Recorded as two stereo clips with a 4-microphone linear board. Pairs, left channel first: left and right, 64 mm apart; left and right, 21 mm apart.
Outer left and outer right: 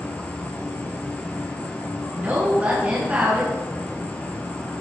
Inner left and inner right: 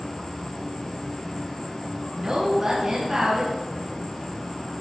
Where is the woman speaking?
30° right (ahead or behind), 1.6 m.